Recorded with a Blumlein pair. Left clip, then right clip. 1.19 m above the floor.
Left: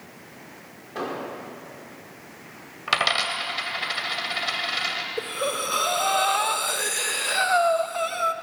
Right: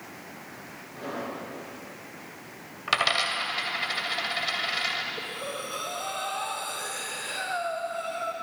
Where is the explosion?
35° left, 4 m.